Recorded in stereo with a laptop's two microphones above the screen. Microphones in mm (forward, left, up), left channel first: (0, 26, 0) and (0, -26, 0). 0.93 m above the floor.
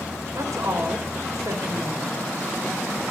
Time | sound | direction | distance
0.3 | a woman speaking | 80° right | 4.5 m